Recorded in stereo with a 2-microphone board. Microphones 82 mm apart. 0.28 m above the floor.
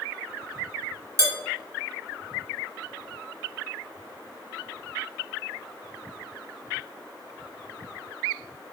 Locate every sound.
1.2 s dishes clattering: 35° right (ahead or behind), 1.4 m